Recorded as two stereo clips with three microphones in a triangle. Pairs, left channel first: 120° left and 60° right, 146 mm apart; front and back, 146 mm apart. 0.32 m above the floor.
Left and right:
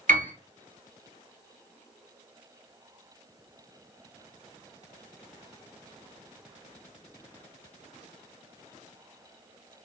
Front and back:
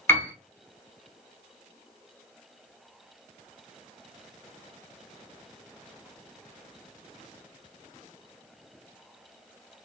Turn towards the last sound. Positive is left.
turn(degrees=-75)